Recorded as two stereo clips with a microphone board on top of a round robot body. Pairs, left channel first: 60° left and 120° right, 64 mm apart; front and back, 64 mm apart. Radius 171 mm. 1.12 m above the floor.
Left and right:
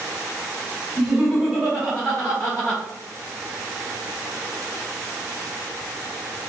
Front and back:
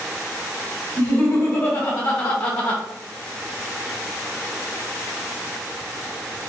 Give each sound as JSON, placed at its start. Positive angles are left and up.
{"t": 1.0, "sound": "laughter", "azimuth_deg": -35, "distance_m": 1.7}